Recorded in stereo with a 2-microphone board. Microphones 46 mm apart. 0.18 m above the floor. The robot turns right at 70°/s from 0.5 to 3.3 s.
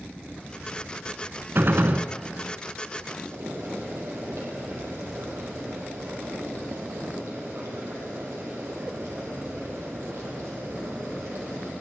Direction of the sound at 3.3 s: 75° right (ahead or behind).